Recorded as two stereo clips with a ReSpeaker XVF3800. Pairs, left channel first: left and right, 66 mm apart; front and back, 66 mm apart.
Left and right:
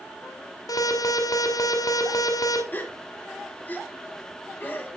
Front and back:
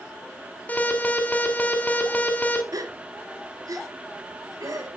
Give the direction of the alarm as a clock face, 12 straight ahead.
10 o'clock.